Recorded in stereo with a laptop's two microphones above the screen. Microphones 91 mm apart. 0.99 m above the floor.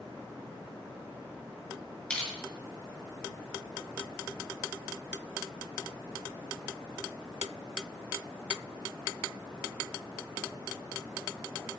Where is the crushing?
10° left (ahead or behind), 7 m.